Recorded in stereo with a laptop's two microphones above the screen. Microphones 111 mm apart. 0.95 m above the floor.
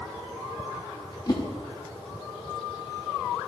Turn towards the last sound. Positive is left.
turn(degrees=40)  # may be behind; listen again after turning